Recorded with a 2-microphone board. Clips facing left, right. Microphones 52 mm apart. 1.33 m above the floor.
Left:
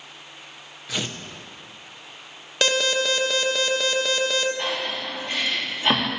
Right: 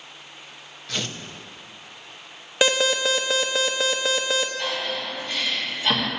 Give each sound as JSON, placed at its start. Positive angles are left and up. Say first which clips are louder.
{"t": 0.9, "sound": "tearing paper", "louder": "left 1 dB", "side_deg": 10, "distance_m": 0.8}
{"t": 2.6, "sound": "an alarm", "louder": "right 1 dB", "side_deg": -15, "distance_m": 1.0}
{"t": 4.6, "sound": "breathing", "louder": "even", "side_deg": 30, "distance_m": 1.7}